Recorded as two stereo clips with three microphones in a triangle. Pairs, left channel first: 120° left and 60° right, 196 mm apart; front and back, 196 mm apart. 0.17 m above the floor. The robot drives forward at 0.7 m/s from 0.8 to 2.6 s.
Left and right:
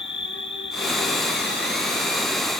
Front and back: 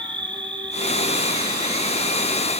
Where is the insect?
115° left, 0.9 m; by 2.6 s 155° left, 1.8 m.